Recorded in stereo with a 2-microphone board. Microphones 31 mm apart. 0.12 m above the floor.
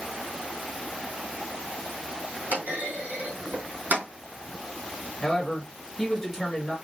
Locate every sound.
2.5 s a clunk: 70° right (ahead or behind), 3 m
5.2 s a man speaking: 5° left (ahead or behind), 1.8 m